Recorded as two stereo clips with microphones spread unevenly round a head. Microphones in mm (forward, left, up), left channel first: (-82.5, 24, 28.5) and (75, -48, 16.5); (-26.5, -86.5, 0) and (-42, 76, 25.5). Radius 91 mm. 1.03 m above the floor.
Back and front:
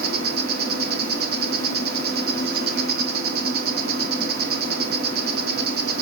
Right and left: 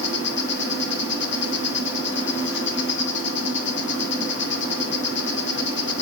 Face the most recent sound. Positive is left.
turn(degrees=-55)